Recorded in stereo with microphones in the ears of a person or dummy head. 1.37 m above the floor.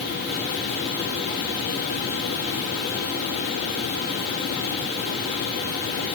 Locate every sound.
Only background noise.